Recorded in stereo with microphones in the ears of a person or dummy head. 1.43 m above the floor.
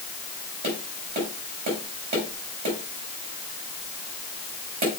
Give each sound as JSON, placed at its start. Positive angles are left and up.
{"t": 0.6, "sound": "tapping", "side_deg": -50, "distance_m": 4.0}